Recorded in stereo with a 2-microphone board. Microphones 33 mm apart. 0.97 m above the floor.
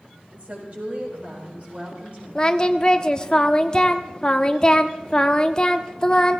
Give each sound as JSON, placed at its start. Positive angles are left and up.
{"t": 0.3, "sound": "a woman speaking", "side_deg": -50, "distance_m": 5.5}
{"t": 2.4, "sound": "singing", "side_deg": 25, "distance_m": 0.9}